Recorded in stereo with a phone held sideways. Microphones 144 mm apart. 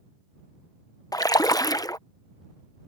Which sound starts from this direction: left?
A splash, at 1.1 s.